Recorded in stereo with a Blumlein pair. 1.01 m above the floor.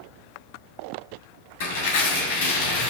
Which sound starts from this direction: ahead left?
Tearing paper, at 1.6 s.